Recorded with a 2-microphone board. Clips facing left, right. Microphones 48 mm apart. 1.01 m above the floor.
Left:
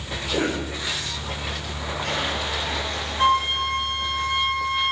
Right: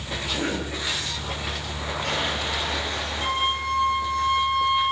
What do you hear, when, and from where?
0.3 s a cough: 60° left (ahead or behind), 5.5 m
3.2 s a flute: 75° left (ahead or behind), 6.5 m